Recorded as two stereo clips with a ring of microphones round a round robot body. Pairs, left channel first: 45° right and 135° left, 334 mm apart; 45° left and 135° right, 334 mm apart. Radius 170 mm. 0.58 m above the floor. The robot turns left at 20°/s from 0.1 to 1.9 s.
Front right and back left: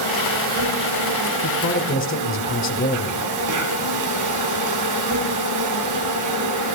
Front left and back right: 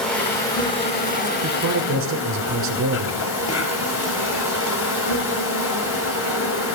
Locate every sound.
0.0 s an insect: 135° left, 2.5 m; by 6.8 s 95° left, 2.5 m
1.4 s a man speaking: 90° right, 2.5 m; by 3.2 s 95° right, 2.5 m